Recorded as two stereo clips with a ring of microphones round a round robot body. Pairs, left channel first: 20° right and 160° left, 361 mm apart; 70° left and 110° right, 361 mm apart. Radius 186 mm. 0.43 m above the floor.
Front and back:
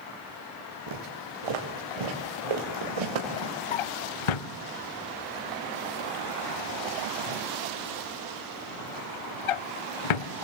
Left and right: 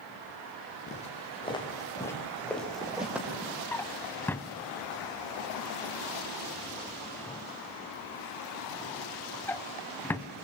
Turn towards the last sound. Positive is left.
turn(degrees=-15)